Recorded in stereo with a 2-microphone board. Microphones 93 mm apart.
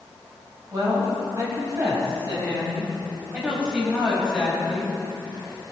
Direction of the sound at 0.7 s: 40° right (ahead or behind).